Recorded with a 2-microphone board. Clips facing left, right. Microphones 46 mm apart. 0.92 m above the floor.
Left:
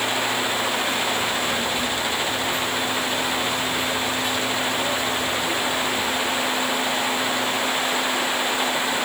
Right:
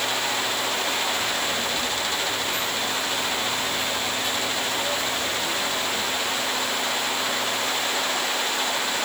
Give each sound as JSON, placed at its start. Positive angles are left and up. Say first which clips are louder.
{"t": 1.2, "sound": "a child speaking", "louder": "left 2 dB", "side_deg": 0, "distance_m": 9.0}